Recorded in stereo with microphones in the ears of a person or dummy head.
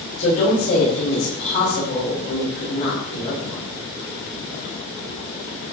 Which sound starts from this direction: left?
A woman speaking, at 0.2 s.